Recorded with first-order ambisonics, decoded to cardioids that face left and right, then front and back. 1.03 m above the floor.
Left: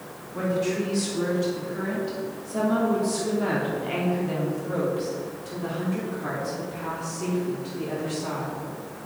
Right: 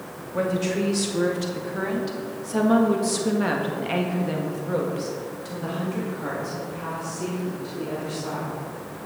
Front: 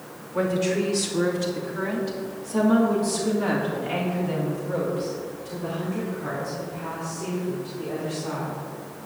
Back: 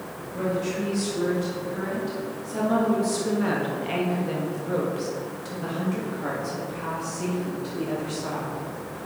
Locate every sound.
0.3 s a woman speaking: 55° right, 2.5 m; by 8.6 s 165° right, 3 m